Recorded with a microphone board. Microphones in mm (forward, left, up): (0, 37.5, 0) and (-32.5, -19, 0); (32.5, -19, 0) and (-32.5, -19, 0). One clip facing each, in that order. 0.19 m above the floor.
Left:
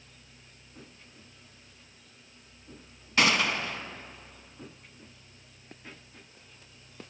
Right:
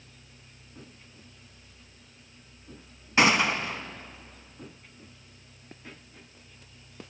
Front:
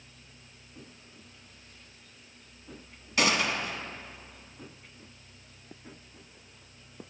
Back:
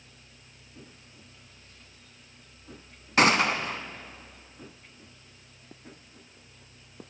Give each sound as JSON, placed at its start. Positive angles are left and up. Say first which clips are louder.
{"t": 3.2, "sound": "a gunshot", "louder": "right 3 dB, back 5 dB", "azimuth_deg": 180, "distance_m": 0.5}